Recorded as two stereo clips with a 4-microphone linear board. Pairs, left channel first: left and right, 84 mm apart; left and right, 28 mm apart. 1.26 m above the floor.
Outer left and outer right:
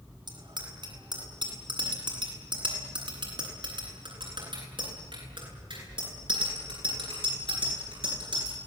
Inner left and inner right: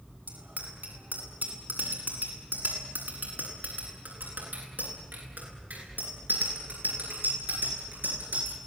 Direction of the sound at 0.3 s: 65° right (ahead or behind).